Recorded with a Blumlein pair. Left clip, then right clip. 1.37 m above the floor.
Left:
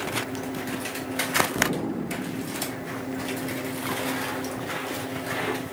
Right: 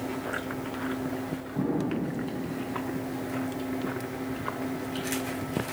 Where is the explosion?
35° left, 2.5 m.